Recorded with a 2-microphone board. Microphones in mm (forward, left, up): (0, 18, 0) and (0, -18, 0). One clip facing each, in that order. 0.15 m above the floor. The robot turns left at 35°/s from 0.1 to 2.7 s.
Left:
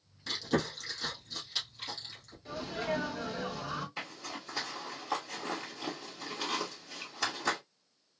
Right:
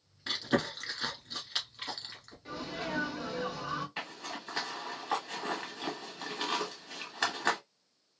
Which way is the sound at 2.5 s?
25° right (ahead or behind).